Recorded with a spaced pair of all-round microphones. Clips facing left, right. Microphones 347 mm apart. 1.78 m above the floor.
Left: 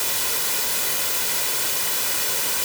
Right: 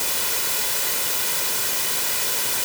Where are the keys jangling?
I don't hear keys jangling.